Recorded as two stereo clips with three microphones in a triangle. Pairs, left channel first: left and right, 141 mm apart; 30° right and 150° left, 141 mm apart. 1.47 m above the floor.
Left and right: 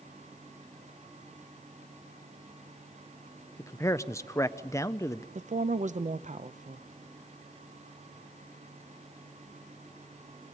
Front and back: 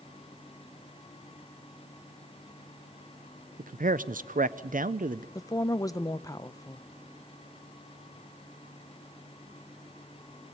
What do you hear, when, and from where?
3.6 s a man speaking: 155° left, 0.5 m
5.3 s a woman speaking: 95° right, 0.7 m